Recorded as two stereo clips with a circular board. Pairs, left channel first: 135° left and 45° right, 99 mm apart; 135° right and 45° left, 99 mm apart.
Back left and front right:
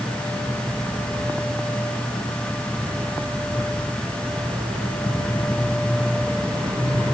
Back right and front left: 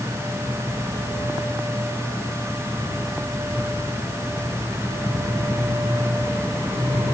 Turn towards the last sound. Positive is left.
No sound to turn to.